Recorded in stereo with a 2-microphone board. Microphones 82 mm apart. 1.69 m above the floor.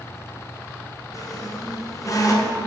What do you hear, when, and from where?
1.1 s a squeak: 40° left (ahead or behind), 0.9 m